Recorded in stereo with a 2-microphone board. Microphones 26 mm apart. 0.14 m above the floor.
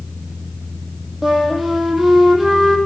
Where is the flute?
5° right (ahead or behind), 2.5 m.